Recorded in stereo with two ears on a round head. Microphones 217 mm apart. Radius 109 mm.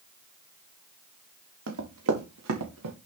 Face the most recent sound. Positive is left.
turn(degrees=-85)